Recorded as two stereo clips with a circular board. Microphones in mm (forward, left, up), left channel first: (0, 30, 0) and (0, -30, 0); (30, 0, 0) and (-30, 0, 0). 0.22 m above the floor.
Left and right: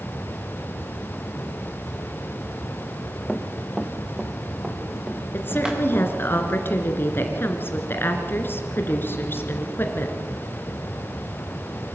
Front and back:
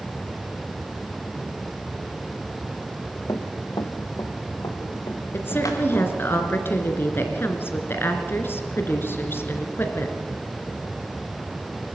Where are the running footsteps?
10° left, 1.5 m; by 6.0 s 15° right, 4.5 m.